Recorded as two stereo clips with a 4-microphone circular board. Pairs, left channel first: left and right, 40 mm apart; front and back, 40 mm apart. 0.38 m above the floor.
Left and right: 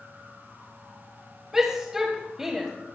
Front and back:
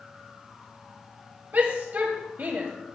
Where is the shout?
165° right, 1.5 m.